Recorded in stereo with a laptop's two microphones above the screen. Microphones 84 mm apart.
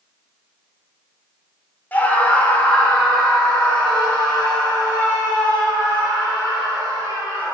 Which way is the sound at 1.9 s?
20° left (ahead or behind).